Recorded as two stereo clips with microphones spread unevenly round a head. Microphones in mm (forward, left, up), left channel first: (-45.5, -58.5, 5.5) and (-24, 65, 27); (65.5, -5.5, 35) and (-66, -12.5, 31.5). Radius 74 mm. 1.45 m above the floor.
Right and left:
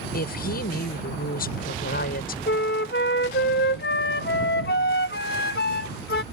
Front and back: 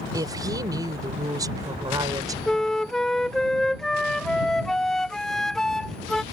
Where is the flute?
85° right.